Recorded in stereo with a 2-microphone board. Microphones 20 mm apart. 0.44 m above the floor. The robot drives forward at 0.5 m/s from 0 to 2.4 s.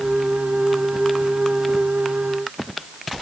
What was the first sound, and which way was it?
Only background noise.